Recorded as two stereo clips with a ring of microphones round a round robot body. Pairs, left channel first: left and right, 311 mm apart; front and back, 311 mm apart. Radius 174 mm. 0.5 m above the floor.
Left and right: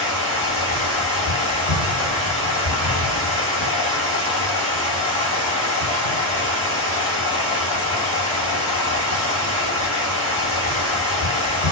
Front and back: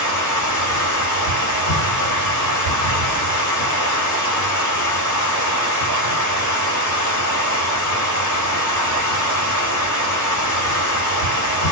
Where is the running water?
5° right, 1.7 m.